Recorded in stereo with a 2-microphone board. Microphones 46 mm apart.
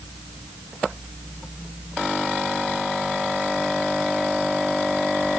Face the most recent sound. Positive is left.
No sound to turn to.